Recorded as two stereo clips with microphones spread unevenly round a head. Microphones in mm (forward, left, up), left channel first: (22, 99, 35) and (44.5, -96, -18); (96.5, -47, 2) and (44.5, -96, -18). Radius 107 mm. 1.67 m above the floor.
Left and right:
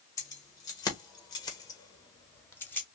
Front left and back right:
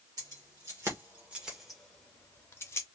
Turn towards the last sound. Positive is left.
turn(degrees=30)